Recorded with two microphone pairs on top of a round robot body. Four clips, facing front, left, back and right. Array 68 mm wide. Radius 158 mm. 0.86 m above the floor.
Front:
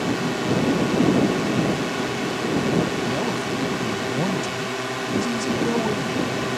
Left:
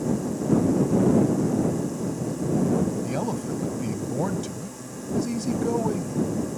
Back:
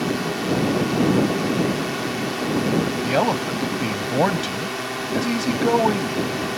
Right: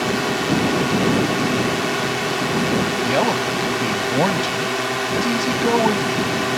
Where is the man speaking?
135° right.